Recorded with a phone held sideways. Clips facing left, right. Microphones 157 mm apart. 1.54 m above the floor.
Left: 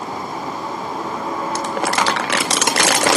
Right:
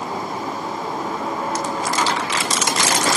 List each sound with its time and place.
1.6 s crumpling: 70° left (ahead or behind), 2 m